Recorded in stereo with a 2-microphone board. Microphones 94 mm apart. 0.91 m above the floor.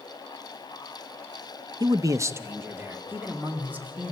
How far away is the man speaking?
About 0.6 m.